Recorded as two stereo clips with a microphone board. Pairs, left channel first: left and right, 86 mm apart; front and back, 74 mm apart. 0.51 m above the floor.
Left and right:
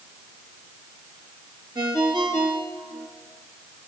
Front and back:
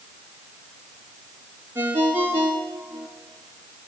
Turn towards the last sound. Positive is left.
turn(degrees=-120)